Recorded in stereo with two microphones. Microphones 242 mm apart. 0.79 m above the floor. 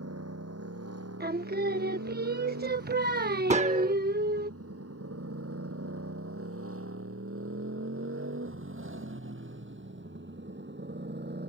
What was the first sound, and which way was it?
A motorcycle, 85° right.